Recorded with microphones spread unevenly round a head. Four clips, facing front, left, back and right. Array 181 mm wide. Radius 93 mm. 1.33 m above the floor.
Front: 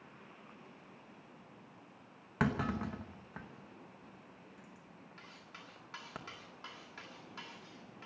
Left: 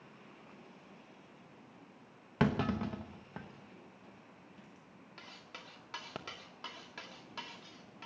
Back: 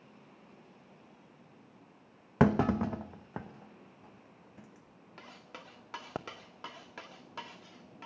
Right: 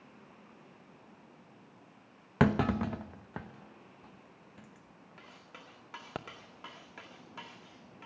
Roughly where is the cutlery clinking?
Behind.